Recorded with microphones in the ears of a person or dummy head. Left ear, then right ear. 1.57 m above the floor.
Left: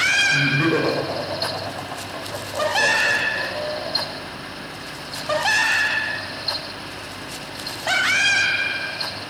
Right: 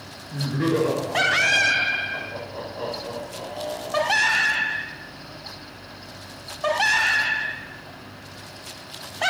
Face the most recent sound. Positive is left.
turn(degrees=65)  # may be behind; listen again after turning